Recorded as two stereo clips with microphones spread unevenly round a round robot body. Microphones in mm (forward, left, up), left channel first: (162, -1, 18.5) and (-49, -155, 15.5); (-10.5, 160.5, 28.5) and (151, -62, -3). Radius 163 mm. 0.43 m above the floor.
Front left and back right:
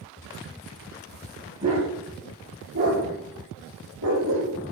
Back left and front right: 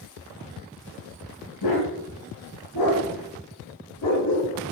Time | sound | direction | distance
1.6 | a dog barking | 140° left | 7 m